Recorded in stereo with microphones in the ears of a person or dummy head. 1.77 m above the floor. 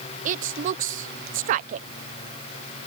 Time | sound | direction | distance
0.2 | a woman speaking | 50° right (ahead or behind) | ?